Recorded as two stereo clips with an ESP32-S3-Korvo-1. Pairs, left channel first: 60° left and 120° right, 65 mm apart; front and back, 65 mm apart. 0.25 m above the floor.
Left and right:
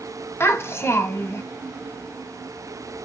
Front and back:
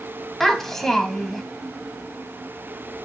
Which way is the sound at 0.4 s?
85° left.